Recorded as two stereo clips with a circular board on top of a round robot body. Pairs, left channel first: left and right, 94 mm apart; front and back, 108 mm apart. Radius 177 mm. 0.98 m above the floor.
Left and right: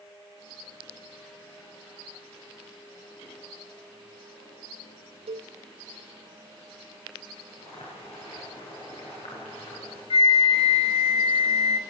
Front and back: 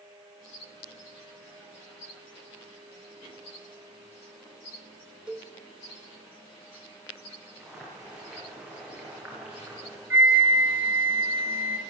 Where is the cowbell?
100° right, 0.6 m.